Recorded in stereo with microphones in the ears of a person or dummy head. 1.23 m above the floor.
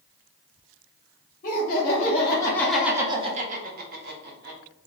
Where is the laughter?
40° left (ahead or behind), 0.9 m; by 4.6 s 50° right (ahead or behind), 1.1 m.